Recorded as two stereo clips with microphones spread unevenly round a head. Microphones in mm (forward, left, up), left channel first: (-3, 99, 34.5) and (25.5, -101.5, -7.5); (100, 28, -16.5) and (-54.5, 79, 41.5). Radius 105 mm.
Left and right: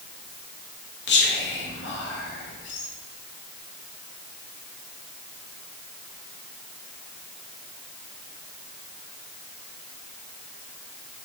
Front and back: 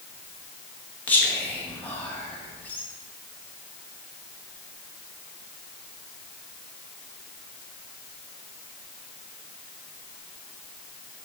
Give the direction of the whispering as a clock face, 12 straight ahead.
10 o'clock.